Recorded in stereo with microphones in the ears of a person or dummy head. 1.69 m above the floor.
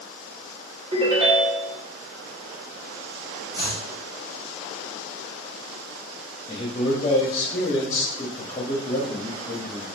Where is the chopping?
20° right (ahead or behind), 1.9 m.